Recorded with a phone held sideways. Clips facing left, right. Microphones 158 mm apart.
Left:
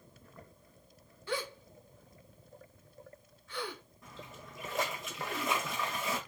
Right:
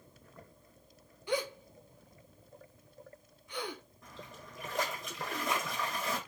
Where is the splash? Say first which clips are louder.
Left 3 dB; 5° left (ahead or behind), 1.6 m.